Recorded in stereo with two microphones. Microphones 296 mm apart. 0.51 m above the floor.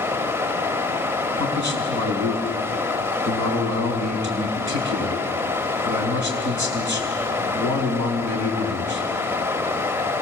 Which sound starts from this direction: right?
A man speaking, at 1.4 s.